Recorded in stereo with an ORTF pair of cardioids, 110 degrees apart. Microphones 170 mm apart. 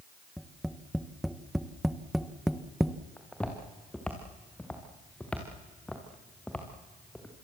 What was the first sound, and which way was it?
Tapping, straight ahead.